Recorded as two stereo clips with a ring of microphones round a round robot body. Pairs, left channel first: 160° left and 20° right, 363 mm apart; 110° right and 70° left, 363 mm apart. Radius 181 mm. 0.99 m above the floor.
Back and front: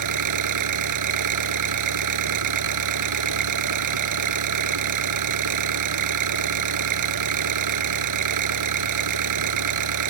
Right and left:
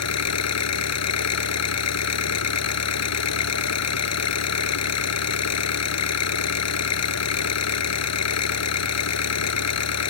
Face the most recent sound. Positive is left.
turn(degrees=-65)